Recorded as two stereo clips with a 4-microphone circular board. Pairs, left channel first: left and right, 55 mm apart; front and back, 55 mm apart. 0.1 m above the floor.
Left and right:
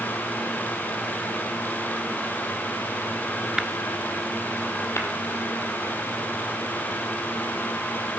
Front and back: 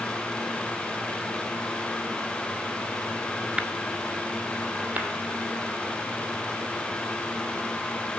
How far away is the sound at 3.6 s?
About 0.7 m.